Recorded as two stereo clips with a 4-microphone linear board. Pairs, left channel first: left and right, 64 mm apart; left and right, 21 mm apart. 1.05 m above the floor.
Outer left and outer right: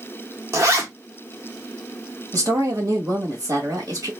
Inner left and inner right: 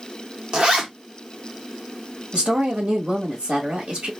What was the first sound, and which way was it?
A zipper, 50° right (ahead or behind).